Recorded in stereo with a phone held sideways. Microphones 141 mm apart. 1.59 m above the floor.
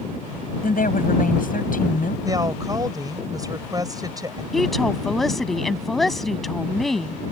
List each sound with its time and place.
0.6 s a woman speaking: 90° left
2.2 s a woman speaking: 30° right (ahead or behind)
4.5 s a woman speaking: centre (ahead or behind)